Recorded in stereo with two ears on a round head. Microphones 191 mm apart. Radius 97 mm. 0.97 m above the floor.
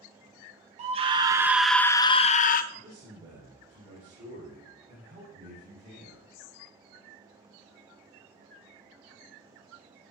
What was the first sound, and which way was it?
A scream, 30° right (ahead or behind).